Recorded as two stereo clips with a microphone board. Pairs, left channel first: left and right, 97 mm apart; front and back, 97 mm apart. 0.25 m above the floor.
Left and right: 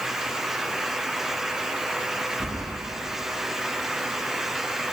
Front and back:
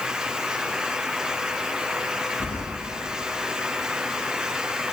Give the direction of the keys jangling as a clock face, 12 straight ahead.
12 o'clock.